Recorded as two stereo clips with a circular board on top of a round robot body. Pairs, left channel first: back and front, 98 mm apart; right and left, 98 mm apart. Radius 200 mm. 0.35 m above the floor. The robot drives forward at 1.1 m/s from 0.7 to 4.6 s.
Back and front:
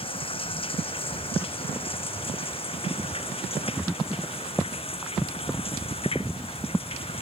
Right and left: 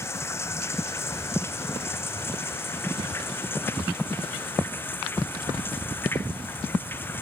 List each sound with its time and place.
0.0 s running water: 155° right; by 7.2 s 160° right